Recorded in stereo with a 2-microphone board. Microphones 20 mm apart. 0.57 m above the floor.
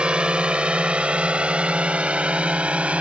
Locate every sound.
0.0 s a drone: 55° right (ahead or behind); by 3.0 s 70° right (ahead or behind)